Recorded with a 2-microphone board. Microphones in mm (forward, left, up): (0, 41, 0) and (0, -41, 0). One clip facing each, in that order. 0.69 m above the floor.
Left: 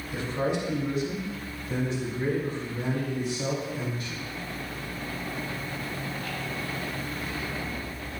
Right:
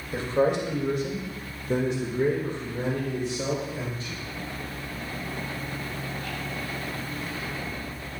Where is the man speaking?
45° right (ahead or behind), 3 m; by 4.3 s 30° right (ahead or behind), 4 m.